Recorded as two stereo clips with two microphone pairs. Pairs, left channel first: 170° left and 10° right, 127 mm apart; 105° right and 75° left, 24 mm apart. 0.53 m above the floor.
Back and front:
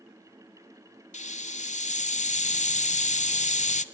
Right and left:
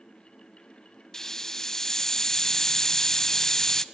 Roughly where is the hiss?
Behind.